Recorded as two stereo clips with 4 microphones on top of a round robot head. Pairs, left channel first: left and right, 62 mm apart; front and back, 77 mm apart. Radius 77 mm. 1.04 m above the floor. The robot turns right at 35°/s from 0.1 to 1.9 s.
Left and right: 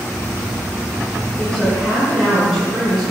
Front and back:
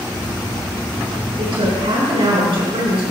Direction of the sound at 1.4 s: 170° left.